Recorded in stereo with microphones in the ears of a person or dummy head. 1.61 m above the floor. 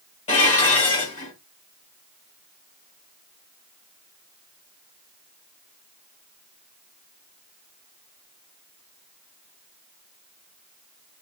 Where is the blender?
No blender in this recording.